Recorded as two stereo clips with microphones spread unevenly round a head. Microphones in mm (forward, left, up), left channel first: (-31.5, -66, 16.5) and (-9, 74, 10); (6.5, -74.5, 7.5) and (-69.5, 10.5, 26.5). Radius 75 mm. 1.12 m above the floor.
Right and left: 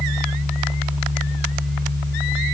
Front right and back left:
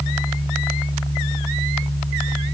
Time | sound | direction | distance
0.0 | a fan | 60° right | 1.5 m